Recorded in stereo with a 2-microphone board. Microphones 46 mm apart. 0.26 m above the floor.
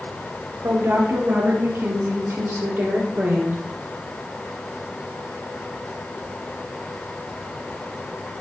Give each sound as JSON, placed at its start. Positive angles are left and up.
{"t": 0.6, "sound": "a woman speaking", "side_deg": -65, "distance_m": 4.0}